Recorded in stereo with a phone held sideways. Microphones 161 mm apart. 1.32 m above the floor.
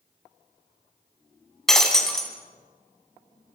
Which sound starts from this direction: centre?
Breaking glass, at 1.7 s.